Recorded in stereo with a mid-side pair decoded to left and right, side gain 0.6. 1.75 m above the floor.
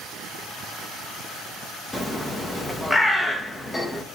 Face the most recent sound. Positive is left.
turn(degrees=15)